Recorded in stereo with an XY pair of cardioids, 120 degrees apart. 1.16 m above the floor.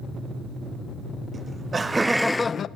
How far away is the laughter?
About 1.6 m.